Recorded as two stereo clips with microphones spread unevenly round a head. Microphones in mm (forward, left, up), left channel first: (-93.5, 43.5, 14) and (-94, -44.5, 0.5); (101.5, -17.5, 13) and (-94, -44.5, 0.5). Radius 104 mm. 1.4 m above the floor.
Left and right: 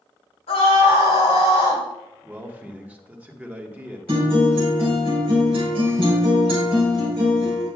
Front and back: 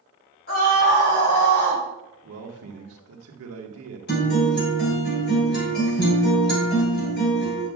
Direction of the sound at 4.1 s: 25° right.